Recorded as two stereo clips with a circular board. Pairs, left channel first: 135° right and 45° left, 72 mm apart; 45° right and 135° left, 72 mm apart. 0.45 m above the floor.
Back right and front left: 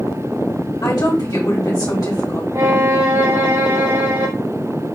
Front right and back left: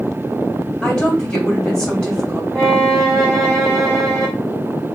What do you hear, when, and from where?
0.8 s a woman speaking: 120° right, 2 m
2.5 s a violin: 40° left, 2 m